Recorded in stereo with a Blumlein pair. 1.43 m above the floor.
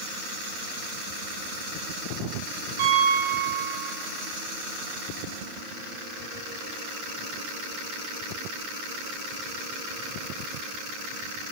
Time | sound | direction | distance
2.8 | a piano | 55° right | 7.5 m